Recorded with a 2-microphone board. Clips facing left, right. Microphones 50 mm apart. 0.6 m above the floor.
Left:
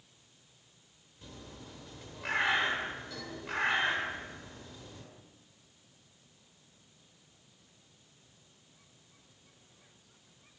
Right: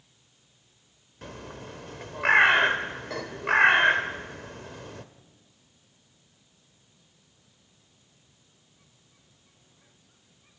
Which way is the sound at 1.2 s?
60° right (ahead or behind).